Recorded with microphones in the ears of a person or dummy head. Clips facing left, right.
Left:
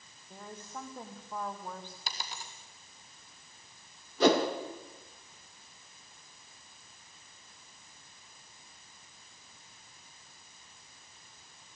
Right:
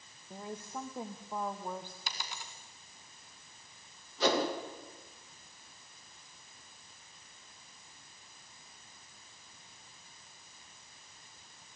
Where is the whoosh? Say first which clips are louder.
Left 5 dB; 50° left (ahead or behind), 2.5 m.